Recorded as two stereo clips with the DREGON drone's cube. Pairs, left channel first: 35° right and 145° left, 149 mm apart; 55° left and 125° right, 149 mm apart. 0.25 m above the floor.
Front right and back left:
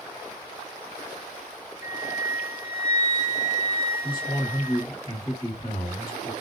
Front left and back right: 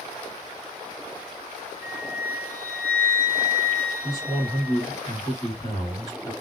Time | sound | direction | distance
1.8 | a flute | 70° left | 1.1 m
4.0 | a man speaking | 10° left | 1.6 m